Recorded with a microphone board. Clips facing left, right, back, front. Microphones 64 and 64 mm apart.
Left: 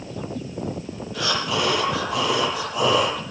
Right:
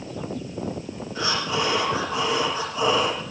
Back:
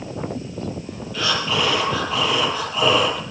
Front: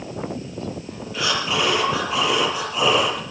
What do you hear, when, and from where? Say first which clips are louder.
1.1 s breathing: left 1 dB, even; 75° left, 8 m